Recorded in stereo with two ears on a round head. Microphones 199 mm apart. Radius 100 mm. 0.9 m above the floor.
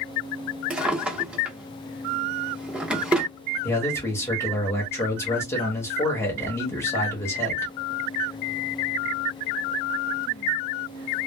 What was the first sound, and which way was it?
A drawer, 5° right (ahead or behind).